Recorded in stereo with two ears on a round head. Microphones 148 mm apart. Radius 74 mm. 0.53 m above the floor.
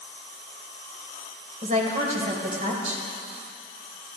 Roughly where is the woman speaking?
Right.